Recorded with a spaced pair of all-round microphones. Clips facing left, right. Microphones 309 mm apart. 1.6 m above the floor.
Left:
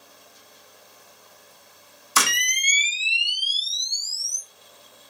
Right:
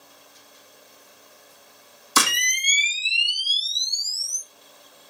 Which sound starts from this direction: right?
A camera shutter, at 2.2 s.